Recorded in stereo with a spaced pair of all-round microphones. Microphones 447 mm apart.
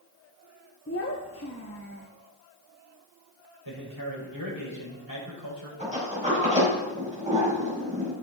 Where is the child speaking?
30° left (ahead or behind), 1.1 m.